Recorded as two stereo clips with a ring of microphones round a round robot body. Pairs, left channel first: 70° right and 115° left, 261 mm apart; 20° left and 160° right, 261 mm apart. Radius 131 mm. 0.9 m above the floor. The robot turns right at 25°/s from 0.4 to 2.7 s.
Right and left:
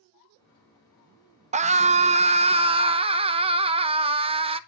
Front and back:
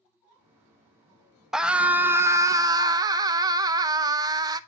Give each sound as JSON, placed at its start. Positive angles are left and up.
{"t": 1.5, "sound": "a scream", "azimuth_deg": 115, "distance_m": 0.7}